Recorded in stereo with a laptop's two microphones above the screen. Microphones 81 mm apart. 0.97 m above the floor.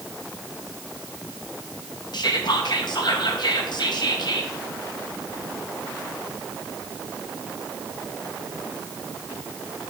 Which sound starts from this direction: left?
Whispering, at 2.1 s.